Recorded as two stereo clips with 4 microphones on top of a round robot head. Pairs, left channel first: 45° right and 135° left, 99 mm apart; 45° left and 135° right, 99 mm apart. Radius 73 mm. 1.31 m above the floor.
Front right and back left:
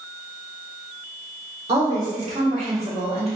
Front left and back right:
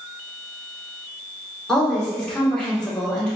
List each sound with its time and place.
1.7 s a woman speaking: 125° left, 1.8 m